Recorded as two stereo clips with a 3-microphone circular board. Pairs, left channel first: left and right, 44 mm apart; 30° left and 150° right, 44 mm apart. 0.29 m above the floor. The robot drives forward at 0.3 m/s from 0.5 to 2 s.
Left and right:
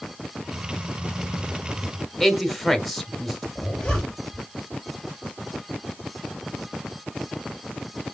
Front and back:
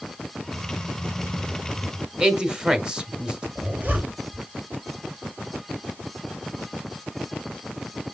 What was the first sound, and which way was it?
A man speaking, 170° left.